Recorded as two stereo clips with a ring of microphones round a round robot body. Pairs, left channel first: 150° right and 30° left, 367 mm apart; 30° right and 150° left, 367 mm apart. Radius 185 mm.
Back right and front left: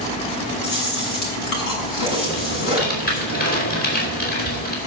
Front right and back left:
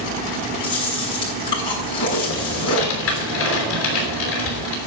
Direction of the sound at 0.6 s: 110° right.